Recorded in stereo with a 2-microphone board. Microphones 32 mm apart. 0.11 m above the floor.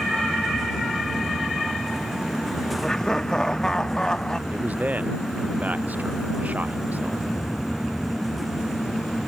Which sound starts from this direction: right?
A man speaking, at 4.5 s.